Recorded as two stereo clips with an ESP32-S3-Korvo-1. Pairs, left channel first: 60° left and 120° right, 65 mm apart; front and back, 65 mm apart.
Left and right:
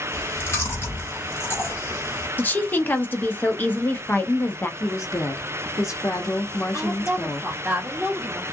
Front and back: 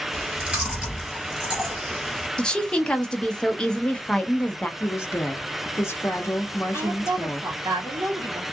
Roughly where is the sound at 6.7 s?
Behind.